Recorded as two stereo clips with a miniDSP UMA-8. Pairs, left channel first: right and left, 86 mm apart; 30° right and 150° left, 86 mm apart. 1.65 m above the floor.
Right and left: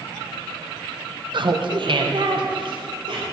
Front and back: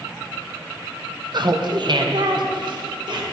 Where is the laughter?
115° left, 0.6 m.